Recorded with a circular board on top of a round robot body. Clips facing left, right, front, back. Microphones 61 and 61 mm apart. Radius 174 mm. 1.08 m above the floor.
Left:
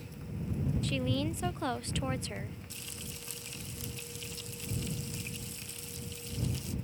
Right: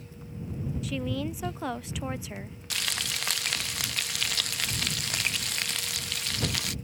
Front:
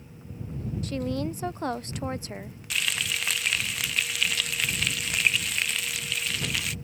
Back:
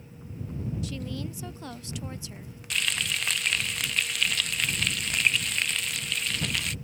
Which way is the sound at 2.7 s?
85° right.